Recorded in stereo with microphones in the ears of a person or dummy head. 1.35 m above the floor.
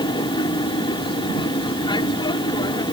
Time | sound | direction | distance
0.0 | an aircraft | 25° left (ahead or behind) | ?